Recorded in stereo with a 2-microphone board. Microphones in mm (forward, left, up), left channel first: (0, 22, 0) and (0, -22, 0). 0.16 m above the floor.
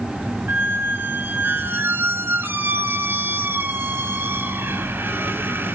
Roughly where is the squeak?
Right.